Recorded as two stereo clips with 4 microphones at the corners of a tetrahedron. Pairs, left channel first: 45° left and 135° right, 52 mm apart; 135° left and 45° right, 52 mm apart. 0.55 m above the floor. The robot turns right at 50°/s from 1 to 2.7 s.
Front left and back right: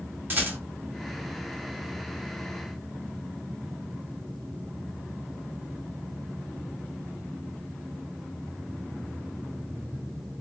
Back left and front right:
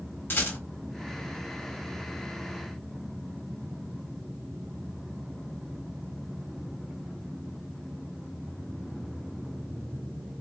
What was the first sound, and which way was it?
A rattle, straight behind.